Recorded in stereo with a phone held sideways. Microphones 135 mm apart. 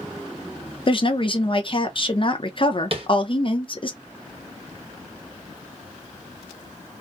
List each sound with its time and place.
0.9 s a woman speaking: 40° left (ahead or behind), 0.6 m
2.9 s tapping: 45° right (ahead or behind), 0.7 m